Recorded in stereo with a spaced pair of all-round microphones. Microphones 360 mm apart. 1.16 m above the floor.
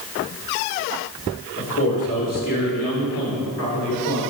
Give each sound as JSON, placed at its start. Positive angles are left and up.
{"t": 1.6, "sound": "a man speaking", "side_deg": 45, "distance_m": 3.0}